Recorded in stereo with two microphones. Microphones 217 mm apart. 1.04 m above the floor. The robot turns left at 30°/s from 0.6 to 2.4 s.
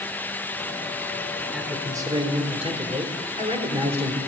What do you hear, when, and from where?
1.5 s a man speaking: 5° right (ahead or behind), 3.5 m; by 4.2 s 30° right (ahead or behind), 3.5 m